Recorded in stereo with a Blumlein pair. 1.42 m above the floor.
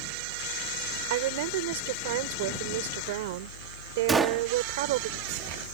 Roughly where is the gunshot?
Ahead.